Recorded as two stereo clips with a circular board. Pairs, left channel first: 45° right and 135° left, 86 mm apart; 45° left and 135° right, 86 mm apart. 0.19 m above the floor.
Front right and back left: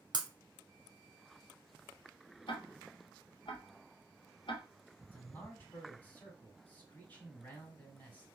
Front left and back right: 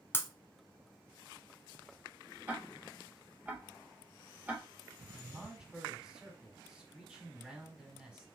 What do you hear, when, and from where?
0.1 s breaking glass: 105° left, 0.5 m
2.5 s ticking: 65° right, 0.9 m
5.1 s a man speaking: 75° right, 1.5 m